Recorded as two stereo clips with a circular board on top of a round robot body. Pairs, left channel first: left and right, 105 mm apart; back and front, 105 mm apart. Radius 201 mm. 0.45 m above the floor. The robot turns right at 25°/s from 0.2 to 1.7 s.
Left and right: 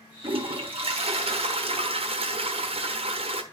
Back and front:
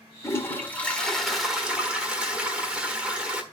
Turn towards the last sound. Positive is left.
turn(degrees=-80)